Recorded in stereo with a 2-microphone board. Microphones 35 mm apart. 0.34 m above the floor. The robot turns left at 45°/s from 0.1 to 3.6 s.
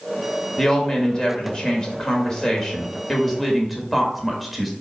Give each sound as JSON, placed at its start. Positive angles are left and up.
{"t": 0.6, "sound": "a woman speaking", "side_deg": 15, "distance_m": 1.0}